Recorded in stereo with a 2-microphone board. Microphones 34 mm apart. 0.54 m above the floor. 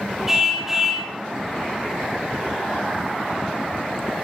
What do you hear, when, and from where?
0.3 s a car horn: 10° right (ahead or behind), 4.5 m